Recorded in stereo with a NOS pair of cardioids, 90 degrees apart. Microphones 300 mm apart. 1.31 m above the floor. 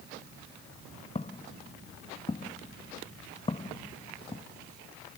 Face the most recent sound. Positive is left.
turn(degrees=20)